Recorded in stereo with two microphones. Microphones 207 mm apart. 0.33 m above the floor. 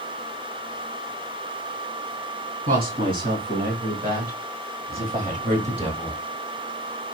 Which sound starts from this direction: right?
A woman speaking, at 2.7 s.